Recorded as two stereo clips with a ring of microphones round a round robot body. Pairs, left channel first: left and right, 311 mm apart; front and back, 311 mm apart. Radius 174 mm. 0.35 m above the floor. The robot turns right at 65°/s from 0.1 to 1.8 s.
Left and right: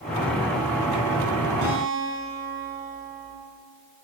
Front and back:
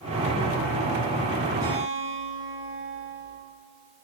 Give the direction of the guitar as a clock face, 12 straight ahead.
3 o'clock.